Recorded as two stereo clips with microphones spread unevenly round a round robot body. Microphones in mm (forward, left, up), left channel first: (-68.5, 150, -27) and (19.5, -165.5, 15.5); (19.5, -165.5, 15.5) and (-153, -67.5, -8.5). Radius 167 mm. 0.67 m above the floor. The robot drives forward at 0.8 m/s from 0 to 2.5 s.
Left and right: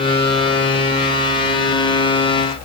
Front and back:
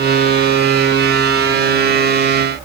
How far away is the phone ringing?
I don't hear a phone ringing.